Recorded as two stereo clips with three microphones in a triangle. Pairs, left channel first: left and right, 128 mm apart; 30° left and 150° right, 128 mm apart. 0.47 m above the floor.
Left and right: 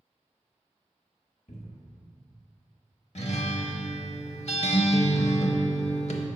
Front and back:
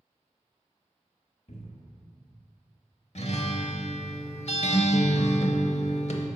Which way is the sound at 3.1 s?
60° left.